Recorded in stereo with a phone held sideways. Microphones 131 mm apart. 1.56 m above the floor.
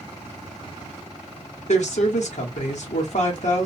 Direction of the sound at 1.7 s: 65° left (ahead or behind).